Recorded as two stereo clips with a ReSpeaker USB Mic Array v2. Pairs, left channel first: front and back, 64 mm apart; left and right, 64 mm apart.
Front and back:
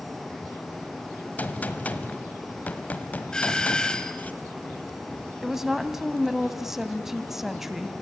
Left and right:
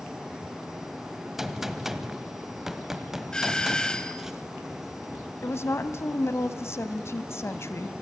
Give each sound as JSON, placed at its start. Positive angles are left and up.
{"t": 1.4, "sound": "a gunshot", "azimuth_deg": -15, "distance_m": 1.3}
{"t": 3.3, "sound": "a doorbell", "azimuth_deg": 40, "distance_m": 1.4}
{"t": 5.4, "sound": "a woman speaking", "azimuth_deg": 95, "distance_m": 1.3}